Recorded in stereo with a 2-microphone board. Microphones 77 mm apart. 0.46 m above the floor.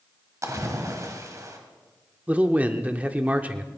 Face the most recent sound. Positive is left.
turn(degrees=-20)  # may be behind; listen again after turning